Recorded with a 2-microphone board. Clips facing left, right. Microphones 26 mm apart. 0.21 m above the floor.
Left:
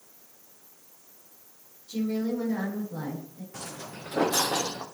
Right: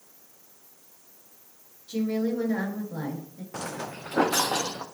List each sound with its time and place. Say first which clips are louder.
1.9 s a woman speaking: right 2 dB; 40° right (ahead or behind), 3.5 m
3.5 s footsteps: right 7 dB; 45° right (ahead or behind), 0.6 m; by 4.8 s 75° right (ahead or behind), 1.6 m